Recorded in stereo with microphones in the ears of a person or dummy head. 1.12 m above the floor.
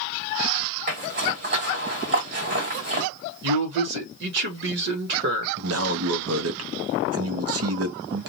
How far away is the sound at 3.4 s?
About 1.0 m.